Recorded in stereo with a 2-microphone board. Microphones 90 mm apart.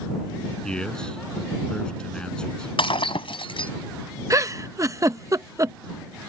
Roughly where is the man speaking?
Centre.